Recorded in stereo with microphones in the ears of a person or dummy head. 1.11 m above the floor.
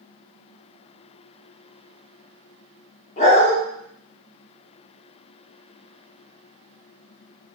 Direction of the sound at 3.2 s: 45° left (ahead or behind).